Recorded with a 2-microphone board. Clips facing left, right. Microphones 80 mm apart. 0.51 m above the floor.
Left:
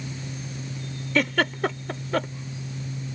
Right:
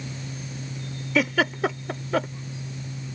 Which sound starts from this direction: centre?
A giggle, at 1.1 s.